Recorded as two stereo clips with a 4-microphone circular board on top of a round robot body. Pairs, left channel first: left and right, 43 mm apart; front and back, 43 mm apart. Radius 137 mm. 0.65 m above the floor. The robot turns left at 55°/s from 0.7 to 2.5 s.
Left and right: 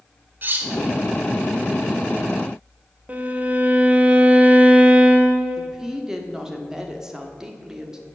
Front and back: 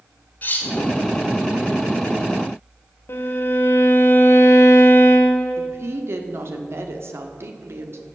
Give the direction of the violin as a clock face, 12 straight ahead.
1 o'clock.